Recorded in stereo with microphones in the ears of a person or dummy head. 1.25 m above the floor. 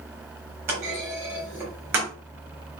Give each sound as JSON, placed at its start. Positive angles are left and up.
{"t": 0.7, "sound": "a clunk", "side_deg": -10, "distance_m": 4.0}